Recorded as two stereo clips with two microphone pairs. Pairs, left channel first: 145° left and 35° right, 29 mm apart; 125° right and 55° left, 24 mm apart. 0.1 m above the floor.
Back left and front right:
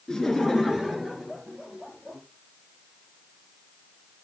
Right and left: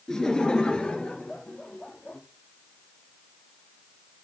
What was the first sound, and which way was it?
Laughter, 170° right.